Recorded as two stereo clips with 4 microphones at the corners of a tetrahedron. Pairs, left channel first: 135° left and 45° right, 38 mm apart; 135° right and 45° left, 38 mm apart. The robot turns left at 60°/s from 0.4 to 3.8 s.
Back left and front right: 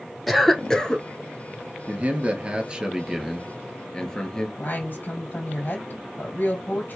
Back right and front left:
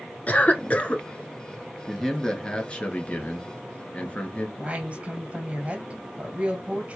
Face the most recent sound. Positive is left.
turn(degrees=100)